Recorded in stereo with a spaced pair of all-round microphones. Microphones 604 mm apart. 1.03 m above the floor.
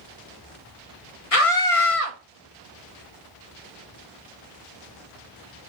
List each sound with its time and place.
1.3 s a scream: 65° left (ahead or behind), 1.4 m